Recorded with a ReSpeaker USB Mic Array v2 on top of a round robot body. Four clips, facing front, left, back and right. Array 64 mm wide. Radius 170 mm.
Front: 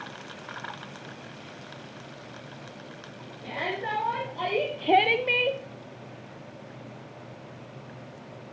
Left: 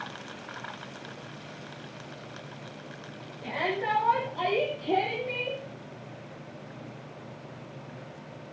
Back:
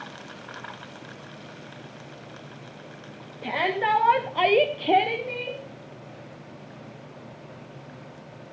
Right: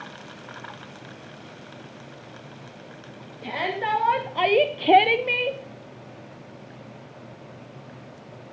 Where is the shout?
160° right, 2.5 m; by 5.6 s 30° right, 1.3 m.